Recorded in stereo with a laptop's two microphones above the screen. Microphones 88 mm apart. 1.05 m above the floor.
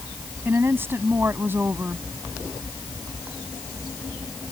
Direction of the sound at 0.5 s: 30° right (ahead or behind).